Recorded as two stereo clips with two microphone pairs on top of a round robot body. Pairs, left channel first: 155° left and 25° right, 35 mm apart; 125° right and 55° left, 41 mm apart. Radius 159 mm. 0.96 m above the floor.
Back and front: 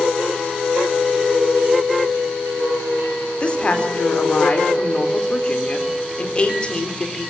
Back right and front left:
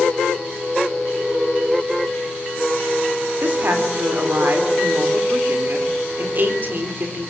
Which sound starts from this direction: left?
A woman speaking, at 3.4 s.